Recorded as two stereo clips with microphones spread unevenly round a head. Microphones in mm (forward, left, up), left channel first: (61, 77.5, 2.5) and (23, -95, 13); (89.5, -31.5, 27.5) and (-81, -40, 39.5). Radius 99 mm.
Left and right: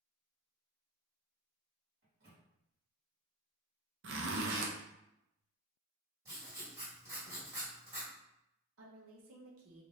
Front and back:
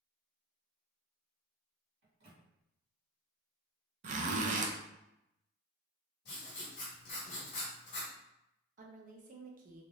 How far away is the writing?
About 1.4 m.